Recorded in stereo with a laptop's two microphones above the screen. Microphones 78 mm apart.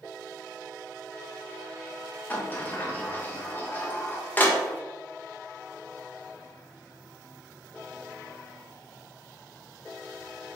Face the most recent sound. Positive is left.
turn(degrees=20)  # may be behind; listen again after turning